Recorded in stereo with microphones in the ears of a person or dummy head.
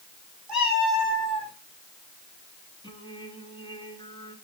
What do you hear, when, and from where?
0.5 s a cat meowing: 5° right (ahead or behind), 6 m; by 1.5 s 10° left (ahead or behind), 6.5 m
2.8 s singing: 20° left (ahead or behind), 9 m